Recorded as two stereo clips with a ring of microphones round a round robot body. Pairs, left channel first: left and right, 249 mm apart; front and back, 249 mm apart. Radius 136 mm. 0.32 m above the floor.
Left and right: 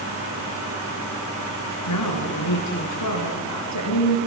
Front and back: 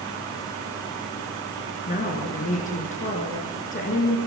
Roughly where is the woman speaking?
Ahead left.